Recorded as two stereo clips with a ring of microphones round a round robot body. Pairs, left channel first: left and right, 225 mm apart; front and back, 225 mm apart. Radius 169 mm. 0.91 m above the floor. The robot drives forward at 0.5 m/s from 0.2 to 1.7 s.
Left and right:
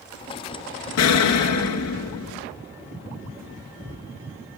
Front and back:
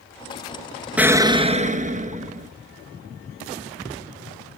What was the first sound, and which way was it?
An explosion, 95° left.